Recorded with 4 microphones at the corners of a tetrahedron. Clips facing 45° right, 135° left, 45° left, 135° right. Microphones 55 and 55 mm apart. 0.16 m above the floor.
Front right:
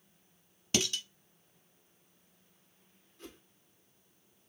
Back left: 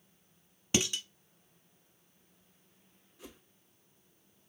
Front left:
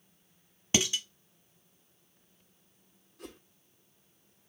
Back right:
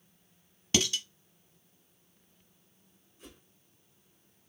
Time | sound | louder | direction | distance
0.7 | dishes clattering | back left 1 dB, even | 85° left | 0.9 m
3.2 | a whoosh | front right 1 dB, front left 6 dB | 55° left | 1.2 m